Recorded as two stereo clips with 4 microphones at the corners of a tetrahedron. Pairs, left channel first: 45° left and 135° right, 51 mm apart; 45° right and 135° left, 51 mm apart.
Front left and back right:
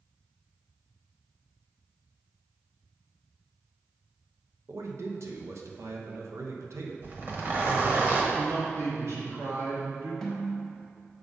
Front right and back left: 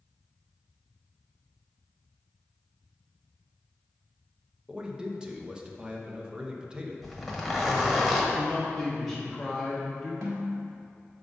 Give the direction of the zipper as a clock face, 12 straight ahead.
5 o'clock.